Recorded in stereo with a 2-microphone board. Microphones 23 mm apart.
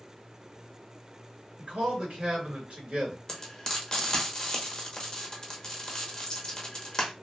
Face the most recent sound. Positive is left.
turn(degrees=25)  # may be behind; listen again after turning